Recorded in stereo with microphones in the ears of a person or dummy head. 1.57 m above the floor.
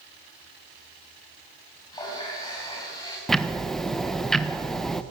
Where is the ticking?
Centre (ahead or behind), 1.2 m.